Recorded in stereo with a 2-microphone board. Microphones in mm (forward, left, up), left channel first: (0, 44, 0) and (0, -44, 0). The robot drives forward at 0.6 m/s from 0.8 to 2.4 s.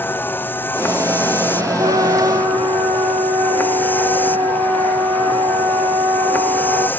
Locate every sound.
0.0 s a vehicle: 25° left (ahead or behind); by 7.0 s 20° left (ahead or behind)
1.8 s a flute: 65° right (ahead or behind)